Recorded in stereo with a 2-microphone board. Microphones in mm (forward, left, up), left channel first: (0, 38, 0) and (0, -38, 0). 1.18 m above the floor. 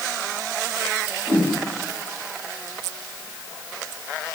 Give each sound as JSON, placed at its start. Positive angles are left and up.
{"t": 1.3, "sound": "a whoosh", "side_deg": 40, "distance_m": 4.0}